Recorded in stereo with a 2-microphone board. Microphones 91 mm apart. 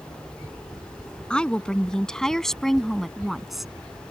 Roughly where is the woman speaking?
Centre.